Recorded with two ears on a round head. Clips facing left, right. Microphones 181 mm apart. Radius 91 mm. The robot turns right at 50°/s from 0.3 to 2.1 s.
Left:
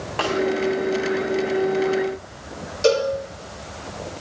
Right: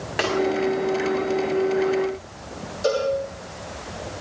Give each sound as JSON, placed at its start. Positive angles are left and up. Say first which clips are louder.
{"t": 0.2, "sound": "a snare drum", "louder": "even", "side_deg": -20, "distance_m": 8.0}
{"t": 2.8, "sound": "a cowbell", "louder": "left 3 dB", "side_deg": 30, "distance_m": 9.0}